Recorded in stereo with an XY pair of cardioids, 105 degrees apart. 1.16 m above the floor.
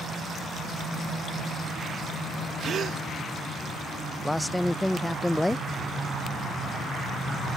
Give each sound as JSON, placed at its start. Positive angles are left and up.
{"t": 2.6, "sound": "a gasp", "azimuth_deg": -55}
{"t": 4.2, "sound": "a man speaking", "azimuth_deg": 10}